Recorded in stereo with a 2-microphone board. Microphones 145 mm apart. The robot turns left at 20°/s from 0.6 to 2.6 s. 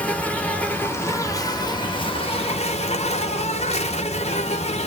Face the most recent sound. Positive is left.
turn(degrees=130)